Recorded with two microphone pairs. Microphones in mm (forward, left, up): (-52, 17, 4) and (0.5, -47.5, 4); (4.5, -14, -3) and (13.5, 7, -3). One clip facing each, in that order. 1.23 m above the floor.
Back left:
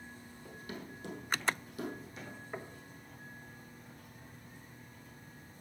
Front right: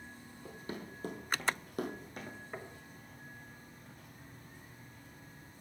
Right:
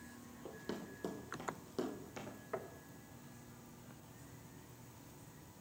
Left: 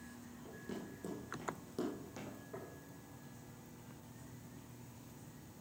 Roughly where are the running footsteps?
Right.